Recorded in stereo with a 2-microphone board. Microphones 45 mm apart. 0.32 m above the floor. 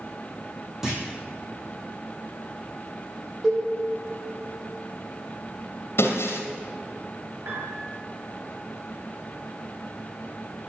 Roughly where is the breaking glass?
Left.